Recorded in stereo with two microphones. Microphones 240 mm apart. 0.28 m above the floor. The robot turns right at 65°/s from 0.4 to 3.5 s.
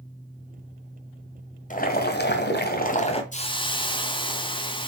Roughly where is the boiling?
Ahead left.